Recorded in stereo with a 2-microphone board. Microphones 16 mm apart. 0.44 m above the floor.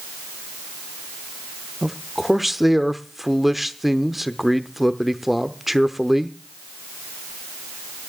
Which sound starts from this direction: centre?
A man speaking, at 1.8 s.